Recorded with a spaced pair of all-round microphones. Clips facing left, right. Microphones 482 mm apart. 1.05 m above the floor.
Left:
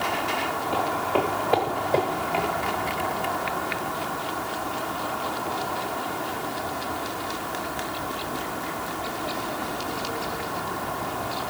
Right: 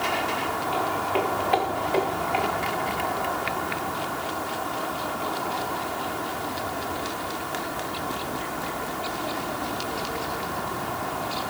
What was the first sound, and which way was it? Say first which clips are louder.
Footsteps: left 2 dB; 75° left (ahead or behind).